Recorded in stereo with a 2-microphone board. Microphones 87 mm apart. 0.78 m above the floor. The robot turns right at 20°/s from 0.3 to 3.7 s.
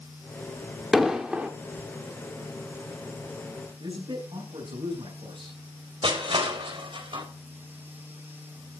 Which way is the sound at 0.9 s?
Centre (ahead or behind).